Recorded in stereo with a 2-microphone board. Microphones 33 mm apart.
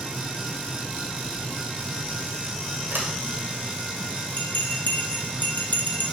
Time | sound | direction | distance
2.9 | a sliding door | 85° right | 2.5 m
4.4 | a bell | 50° left (ahead or behind) | 1.6 m